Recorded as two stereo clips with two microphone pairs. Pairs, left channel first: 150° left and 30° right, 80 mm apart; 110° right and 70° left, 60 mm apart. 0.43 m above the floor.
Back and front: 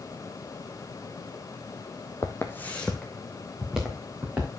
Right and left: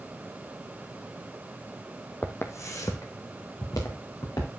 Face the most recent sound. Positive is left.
turn(degrees=-100)